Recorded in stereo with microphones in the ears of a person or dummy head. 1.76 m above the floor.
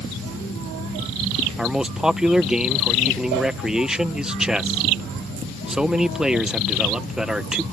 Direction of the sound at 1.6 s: Centre (ahead or behind).